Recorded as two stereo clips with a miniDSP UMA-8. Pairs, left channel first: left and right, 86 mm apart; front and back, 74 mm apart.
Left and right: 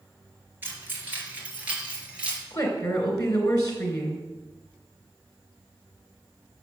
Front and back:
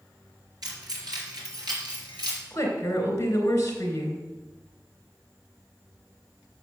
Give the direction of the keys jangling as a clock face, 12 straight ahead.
5 o'clock.